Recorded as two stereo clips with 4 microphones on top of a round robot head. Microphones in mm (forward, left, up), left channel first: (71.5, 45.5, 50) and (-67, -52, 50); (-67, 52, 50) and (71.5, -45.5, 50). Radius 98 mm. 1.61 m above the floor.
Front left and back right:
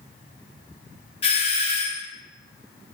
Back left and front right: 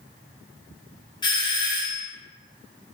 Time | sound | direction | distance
1.2 | a doorbell | 85° left | 0.6 m